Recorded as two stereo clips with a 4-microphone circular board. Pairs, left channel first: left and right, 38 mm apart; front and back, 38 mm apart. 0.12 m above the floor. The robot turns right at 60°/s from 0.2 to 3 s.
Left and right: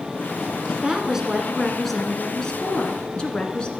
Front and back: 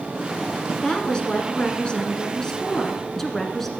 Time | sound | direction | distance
0.8 | a woman speaking | 55° right | 1.3 m